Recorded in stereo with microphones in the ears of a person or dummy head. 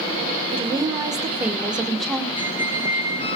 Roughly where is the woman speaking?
Right.